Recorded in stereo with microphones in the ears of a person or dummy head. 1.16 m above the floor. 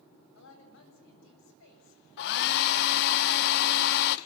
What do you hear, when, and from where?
0.3 s a woman speaking: 70° left (ahead or behind), 7.5 m
2.2 s a hair dryer: 55° left (ahead or behind), 0.8 m